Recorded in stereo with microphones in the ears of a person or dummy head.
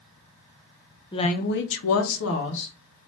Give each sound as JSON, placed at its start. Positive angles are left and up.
{"t": 1.1, "sound": "a woman speaking", "side_deg": 20, "distance_m": 0.5}